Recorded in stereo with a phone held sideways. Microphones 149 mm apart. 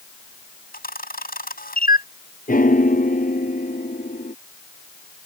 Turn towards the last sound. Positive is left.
turn(degrees=65)  # may be behind; listen again after turning